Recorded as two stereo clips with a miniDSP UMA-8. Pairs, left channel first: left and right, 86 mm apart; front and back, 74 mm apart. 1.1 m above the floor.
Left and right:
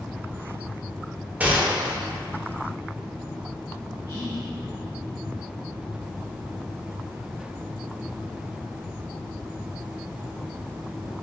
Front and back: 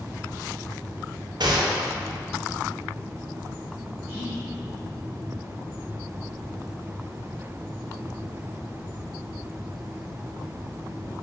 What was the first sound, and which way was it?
A gunshot, 160° right.